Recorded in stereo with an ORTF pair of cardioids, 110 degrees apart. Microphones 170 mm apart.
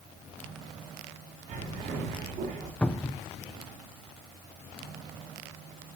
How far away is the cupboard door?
About 0.7 m.